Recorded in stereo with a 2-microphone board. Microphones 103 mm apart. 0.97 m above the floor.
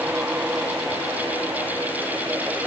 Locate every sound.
Only background noise.